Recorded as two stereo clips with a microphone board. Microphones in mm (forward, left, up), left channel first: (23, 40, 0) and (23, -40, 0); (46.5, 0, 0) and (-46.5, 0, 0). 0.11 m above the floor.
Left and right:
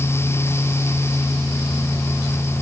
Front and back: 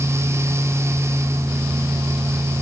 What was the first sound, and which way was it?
Only background noise.